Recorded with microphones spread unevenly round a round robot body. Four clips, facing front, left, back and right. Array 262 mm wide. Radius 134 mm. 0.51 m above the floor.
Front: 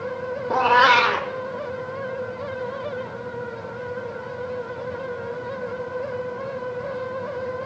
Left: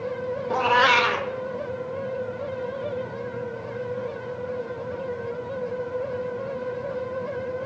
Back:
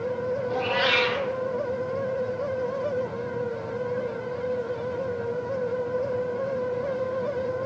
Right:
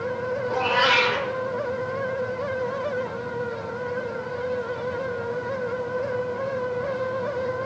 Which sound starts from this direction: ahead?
A cat meowing, at 0.5 s.